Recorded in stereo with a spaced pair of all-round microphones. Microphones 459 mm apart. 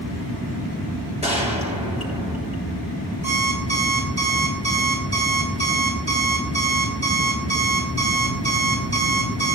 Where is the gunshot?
15° right (ahead or behind), 6.5 m.